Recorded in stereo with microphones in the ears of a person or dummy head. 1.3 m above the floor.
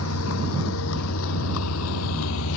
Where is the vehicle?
85° left; by 2.6 s 80° left.